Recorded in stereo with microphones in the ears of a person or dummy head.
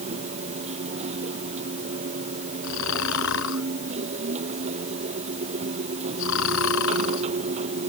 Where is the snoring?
70° left (ahead or behind).